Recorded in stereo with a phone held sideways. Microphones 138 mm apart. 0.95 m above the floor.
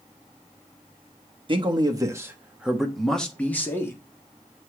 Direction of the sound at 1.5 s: 35° right (ahead or behind).